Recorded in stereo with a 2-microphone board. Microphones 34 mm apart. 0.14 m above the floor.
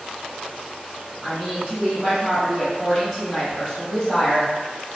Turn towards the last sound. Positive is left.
turn(degrees=10)  # may be behind; listen again after turning